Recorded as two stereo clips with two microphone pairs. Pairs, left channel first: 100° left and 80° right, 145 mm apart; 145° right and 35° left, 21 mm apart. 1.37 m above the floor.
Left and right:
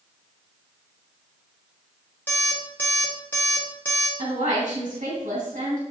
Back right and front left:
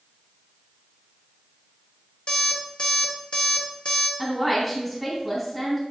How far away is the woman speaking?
About 3 m.